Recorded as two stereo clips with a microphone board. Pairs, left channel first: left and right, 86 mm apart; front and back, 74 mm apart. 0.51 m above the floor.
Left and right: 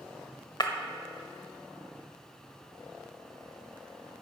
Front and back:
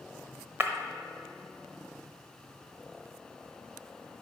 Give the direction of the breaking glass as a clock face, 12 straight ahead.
8 o'clock.